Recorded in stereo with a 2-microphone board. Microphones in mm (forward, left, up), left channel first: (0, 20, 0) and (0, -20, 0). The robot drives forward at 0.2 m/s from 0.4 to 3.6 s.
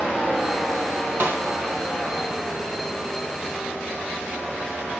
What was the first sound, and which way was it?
A snare drum, 60° right (ahead or behind).